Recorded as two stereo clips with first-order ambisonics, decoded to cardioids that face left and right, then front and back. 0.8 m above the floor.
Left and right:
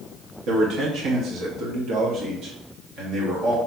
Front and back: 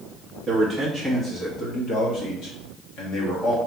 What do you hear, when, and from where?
0.5 s a man speaking: 110° right, 0.7 m; by 3.6 s 40° right, 2 m